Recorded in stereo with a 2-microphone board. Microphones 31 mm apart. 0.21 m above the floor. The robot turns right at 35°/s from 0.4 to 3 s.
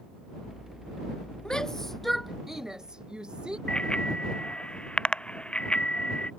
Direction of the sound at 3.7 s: 35° left (ahead or behind).